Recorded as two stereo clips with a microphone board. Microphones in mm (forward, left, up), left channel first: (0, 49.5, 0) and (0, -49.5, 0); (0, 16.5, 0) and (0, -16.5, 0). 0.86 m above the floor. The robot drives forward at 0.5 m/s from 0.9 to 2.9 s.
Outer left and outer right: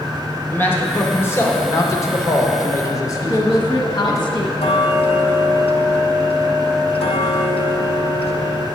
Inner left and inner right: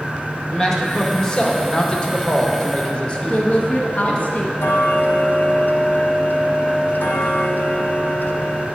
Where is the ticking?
80° left, 0.7 m.